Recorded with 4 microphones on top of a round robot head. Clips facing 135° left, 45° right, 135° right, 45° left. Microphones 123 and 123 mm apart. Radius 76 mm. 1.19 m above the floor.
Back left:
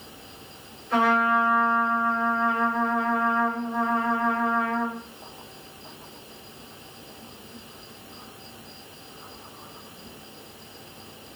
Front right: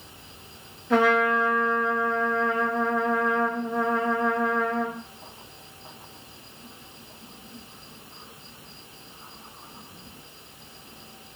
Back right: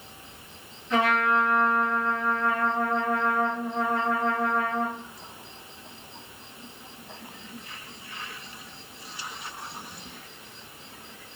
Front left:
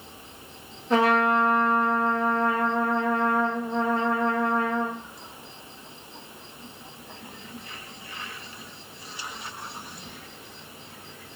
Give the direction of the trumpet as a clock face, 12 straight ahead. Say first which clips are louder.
Front right 1 dB, front left 3 dB; 12 o'clock.